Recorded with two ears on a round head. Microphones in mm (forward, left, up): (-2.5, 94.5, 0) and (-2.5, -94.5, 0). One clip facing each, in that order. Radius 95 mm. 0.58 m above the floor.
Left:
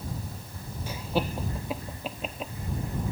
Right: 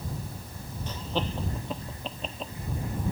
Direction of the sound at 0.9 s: 10° left (ahead or behind).